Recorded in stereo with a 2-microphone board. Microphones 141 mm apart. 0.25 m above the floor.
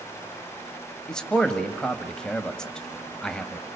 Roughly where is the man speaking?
Centre.